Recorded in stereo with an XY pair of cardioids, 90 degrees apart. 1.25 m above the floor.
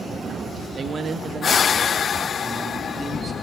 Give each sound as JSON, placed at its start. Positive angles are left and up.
{"t": 0.8, "sound": "a man speaking", "azimuth_deg": -55, "distance_m": 1.7}